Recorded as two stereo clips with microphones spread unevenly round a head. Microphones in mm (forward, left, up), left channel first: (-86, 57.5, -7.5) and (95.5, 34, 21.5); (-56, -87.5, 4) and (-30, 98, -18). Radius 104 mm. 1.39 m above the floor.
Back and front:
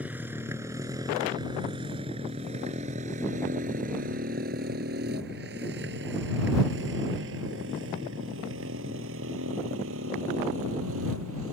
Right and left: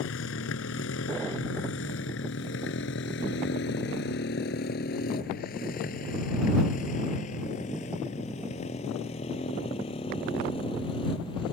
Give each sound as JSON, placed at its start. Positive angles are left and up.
{"t": 0.0, "sound": "a motorcycle", "azimuth_deg": -90}